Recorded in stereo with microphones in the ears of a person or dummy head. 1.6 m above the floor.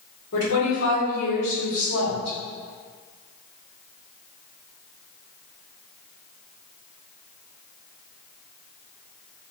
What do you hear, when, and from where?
0.3 s a woman speaking: 60° left (ahead or behind), 1.9 m